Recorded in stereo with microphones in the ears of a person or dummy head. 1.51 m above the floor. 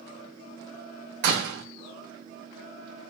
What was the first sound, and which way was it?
A door slam, 60° right (ahead or behind).